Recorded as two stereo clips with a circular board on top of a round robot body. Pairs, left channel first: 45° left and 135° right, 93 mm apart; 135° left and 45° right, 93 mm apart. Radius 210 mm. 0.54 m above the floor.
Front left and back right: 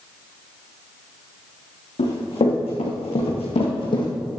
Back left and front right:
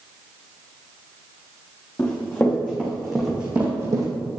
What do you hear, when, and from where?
2.0 s running footsteps: 65° left, 3.5 m; by 4.1 s 5° left, 1.7 m